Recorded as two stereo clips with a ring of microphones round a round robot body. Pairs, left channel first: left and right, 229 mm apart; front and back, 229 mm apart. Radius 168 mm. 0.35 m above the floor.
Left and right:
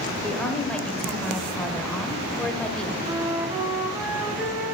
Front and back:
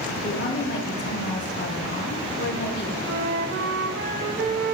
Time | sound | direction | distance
0.2 | a woman speaking | 5° left | 1.4 m
3.0 | a flute | 170° right | 0.7 m